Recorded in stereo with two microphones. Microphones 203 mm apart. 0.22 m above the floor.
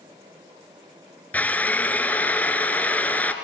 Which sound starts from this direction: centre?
A drill, at 1.3 s.